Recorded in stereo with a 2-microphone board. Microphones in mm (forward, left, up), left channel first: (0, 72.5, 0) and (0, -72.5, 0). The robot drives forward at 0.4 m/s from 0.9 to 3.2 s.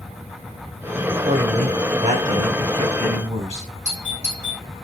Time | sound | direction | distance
1.1 | a man speaking | 60° right (ahead or behind) | 2.0 m
3.9 | a doorbell | 50° right (ahead or behind) | 2.5 m